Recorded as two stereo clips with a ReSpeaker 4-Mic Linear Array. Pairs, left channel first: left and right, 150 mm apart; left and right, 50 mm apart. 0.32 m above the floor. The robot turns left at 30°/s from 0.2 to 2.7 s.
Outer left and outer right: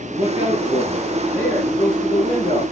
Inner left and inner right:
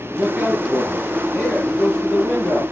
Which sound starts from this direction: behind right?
A man speaking, at 0.1 s.